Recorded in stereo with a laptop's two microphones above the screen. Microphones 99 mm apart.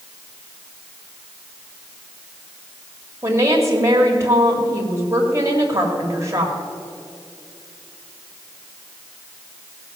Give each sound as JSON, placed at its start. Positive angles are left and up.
{"t": 3.2, "sound": "a woman speaking", "side_deg": -30, "distance_m": 1.8}